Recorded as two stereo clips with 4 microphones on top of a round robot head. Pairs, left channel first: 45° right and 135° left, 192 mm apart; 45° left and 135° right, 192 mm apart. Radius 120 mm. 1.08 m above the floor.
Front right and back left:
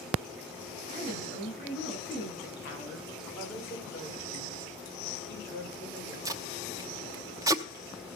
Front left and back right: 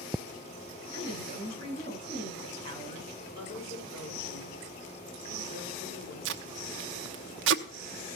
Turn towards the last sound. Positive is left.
turn(degrees=-155)